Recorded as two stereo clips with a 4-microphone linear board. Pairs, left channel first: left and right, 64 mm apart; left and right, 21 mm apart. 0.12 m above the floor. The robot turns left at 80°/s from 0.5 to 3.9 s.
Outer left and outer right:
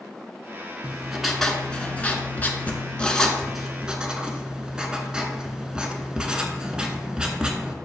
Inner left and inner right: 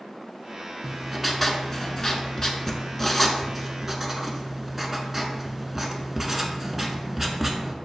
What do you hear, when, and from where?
0.8 s writing: 15° right (ahead or behind), 0.5 m